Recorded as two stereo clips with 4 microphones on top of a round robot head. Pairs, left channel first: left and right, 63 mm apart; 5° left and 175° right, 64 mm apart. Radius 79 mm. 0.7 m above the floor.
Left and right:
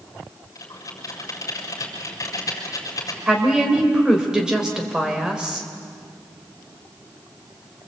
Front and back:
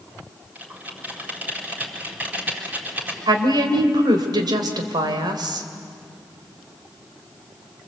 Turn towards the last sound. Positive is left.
turn(degrees=-170)